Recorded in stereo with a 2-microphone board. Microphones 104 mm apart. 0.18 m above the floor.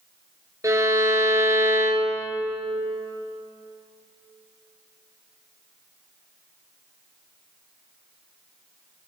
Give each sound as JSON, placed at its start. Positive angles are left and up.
{"t": 0.6, "sound": "a violin", "side_deg": -30, "distance_m": 2.5}